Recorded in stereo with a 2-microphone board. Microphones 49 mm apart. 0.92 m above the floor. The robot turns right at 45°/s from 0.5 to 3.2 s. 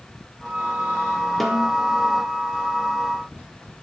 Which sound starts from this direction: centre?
A snare drum, at 1.4 s.